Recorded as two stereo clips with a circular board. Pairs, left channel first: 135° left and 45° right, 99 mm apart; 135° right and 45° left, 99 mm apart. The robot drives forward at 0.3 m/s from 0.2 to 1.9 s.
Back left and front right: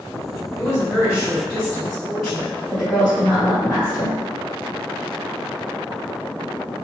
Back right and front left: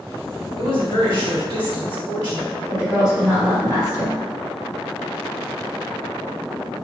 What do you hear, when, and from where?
0.6 s a woman speaking: 130° right, 1.8 m; by 2.6 s 140° right, 2 m
2.7 s a woman speaking: 160° right, 1.7 m